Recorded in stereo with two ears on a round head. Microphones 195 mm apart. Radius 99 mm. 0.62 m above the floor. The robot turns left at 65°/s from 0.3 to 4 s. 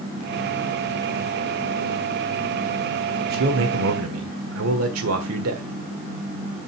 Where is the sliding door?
No sliding door in this recording.